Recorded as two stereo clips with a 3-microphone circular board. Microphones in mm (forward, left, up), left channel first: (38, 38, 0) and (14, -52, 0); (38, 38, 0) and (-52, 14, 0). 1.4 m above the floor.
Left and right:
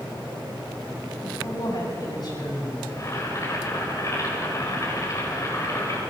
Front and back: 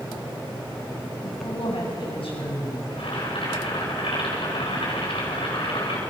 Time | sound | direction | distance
1.2 | a man speaking | 30° left | 8 m
2.9 | boiling | 20° left | 7 m